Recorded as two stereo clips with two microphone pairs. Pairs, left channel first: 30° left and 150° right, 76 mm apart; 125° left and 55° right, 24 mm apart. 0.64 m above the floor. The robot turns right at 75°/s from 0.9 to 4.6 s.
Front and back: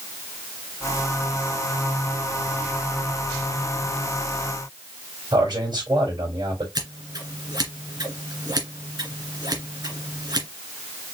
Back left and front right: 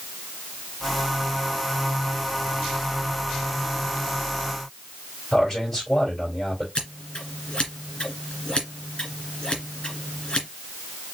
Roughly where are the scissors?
Behind.